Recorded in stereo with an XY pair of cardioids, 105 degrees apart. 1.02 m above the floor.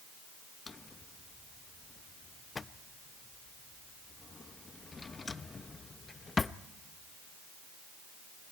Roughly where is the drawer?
Ahead left.